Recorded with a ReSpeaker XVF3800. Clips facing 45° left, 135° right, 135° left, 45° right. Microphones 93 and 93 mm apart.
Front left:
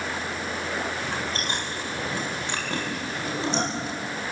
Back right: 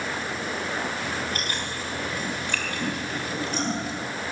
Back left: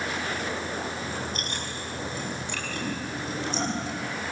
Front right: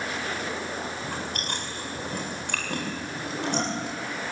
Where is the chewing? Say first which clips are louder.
Even, even; 20° right, 7.5 m.